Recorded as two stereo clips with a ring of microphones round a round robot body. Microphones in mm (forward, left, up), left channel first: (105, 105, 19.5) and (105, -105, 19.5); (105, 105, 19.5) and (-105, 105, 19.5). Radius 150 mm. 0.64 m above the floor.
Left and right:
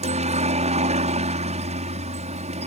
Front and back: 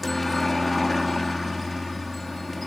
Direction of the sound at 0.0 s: 90° right.